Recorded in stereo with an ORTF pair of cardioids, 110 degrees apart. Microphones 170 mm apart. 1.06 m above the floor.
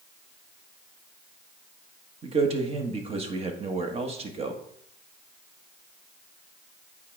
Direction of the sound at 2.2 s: 40° right.